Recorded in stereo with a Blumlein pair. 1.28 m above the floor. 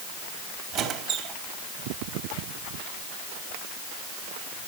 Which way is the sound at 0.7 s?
35° right.